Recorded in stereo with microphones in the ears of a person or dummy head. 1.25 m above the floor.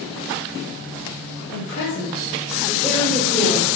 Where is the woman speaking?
60° left (ahead or behind), 0.6 m; by 3.7 s 50° left (ahead or behind), 1.7 m.